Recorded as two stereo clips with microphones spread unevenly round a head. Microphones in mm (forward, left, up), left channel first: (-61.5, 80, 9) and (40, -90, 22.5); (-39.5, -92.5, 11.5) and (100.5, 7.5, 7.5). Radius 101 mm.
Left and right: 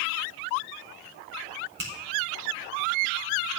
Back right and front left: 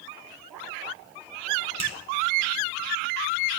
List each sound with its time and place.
1.8 s a finger snap: 15° right, 4 m